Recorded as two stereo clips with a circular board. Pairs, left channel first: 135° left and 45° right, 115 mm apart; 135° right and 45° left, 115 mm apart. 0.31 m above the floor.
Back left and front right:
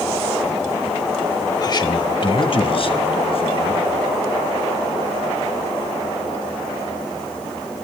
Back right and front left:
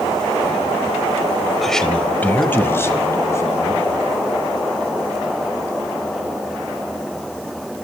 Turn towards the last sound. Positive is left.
turn(degrees=165)